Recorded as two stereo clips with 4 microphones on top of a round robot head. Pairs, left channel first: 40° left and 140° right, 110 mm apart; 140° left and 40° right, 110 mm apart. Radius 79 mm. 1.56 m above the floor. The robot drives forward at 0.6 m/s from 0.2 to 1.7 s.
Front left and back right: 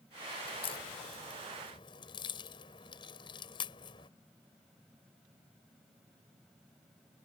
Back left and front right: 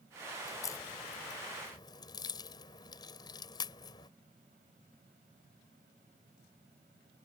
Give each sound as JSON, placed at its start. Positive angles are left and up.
{"t": 0.5, "sound": "a crack", "azimuth_deg": 80}